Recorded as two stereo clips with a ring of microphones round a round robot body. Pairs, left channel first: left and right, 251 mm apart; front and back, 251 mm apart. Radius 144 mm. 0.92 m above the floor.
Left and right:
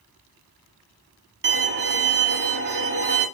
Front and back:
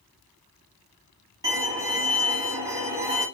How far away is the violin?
About 0.9 m.